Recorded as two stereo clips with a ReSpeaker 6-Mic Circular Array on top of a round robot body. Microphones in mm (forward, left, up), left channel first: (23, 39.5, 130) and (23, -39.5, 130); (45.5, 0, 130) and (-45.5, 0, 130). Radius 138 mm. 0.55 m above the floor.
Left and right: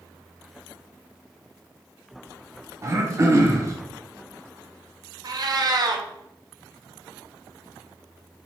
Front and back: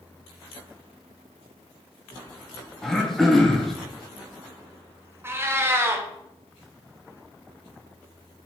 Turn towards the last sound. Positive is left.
turn(degrees=-120)